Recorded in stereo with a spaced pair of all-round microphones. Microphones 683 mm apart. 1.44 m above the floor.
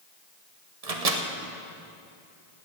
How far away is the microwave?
About 1.1 m.